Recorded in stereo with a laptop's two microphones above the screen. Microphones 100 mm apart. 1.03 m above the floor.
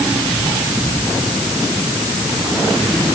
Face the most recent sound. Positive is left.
No sound to turn to.